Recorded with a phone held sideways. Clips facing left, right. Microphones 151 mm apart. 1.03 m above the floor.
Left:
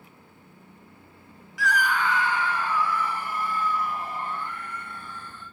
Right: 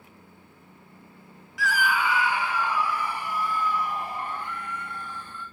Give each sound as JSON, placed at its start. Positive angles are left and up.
{"t": 1.6, "sound": "a scream", "side_deg": 0, "distance_m": 0.6}